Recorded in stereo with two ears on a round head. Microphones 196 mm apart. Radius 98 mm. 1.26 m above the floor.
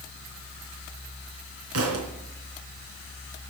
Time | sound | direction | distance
1.7 | a thud | 70° right (ahead or behind) | 3.5 m